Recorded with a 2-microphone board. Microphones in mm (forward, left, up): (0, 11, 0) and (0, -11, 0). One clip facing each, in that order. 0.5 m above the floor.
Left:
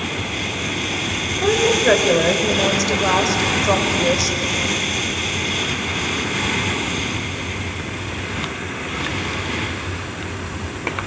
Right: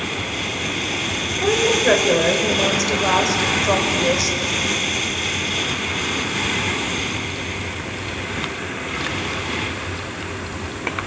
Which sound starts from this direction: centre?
A woman speaking, at 1.4 s.